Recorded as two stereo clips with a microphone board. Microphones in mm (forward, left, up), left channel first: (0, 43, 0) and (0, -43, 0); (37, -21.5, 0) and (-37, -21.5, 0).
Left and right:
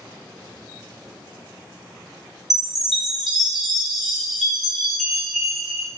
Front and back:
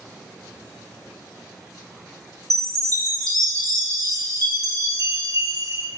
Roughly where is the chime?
Behind.